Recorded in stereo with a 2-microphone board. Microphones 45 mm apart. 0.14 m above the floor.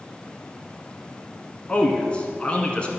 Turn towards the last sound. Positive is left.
turn(degrees=25)  # may be behind; listen again after turning